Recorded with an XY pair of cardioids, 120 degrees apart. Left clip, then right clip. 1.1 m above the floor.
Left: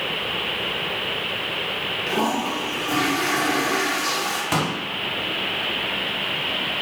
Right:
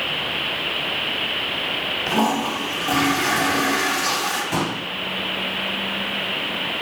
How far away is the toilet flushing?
About 1.2 m.